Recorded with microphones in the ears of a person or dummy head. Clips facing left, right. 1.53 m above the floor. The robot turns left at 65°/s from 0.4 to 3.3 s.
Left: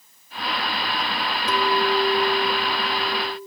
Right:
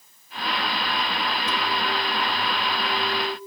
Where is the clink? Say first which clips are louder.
Left 10 dB; 85° left, 1.7 m; by 3.4 s 35° right, 1.7 m.